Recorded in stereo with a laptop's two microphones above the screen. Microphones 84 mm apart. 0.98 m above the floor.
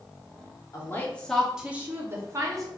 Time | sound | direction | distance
0.7 | a woman speaking | 35° left (ahead or behind) | 0.7 m